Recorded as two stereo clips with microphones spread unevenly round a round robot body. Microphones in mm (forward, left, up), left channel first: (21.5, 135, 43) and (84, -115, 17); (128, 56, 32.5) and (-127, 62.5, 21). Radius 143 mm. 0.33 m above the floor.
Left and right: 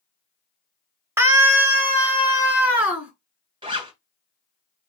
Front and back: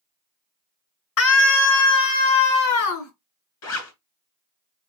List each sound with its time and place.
1.2 s a scream: straight ahead, 1.5 m; by 3.1 s 10° left, 4 m
3.6 s a zipper: 10° right, 2.5 m